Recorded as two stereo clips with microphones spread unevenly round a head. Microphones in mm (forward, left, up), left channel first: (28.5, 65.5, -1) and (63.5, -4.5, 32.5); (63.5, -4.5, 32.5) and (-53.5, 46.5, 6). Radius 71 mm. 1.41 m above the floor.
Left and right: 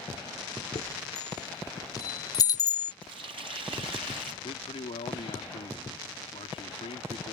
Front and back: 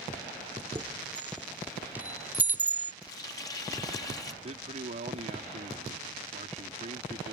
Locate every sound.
0.8 s a chime: 70° left
3.0 s a running tap: 85° right
4.4 s a man speaking: 120° left